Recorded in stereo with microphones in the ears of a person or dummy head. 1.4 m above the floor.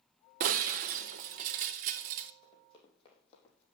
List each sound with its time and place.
0.4 s breaking glass: 50° right (ahead or behind), 0.7 m
2.4 s running footsteps: 25° left (ahead or behind), 4.5 m; by 3.6 s 35° left (ahead or behind), 3 m